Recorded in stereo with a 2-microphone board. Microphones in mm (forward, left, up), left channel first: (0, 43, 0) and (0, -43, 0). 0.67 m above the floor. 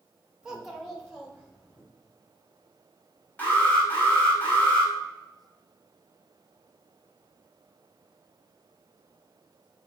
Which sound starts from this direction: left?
An alarm, at 3.4 s.